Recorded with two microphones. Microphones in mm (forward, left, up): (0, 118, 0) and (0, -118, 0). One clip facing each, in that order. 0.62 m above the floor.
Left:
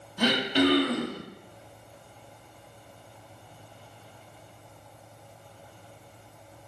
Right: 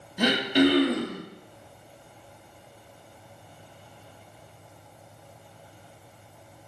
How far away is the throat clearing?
About 1.0 m.